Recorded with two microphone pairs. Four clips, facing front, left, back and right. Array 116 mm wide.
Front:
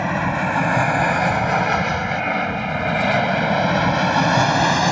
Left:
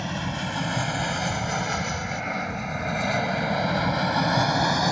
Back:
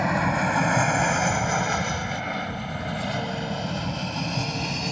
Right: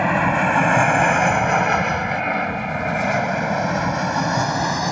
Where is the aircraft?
85° right; by 4.9 s straight ahead.